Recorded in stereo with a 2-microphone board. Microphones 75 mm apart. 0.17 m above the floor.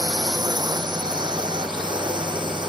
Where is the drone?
60° right (ahead or behind); by 2.7 s 80° right.